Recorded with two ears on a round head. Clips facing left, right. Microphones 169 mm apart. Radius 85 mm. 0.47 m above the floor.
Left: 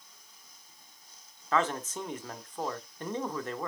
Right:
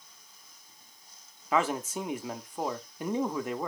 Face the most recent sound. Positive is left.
turn(degrees=-10)  # may be behind; listen again after turning